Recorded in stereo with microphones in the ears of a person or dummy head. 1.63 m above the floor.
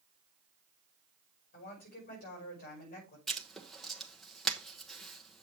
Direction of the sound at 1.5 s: 50° left (ahead or behind).